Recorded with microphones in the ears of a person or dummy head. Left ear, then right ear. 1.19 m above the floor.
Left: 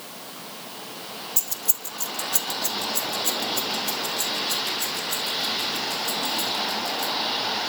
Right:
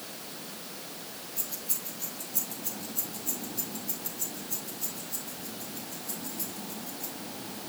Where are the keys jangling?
55° left (ahead or behind), 1.1 m; by 7.1 s 65° left (ahead or behind), 4.5 m.